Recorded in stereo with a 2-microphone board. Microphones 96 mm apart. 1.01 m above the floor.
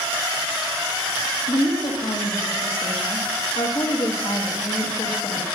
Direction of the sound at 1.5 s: 60° left (ahead or behind).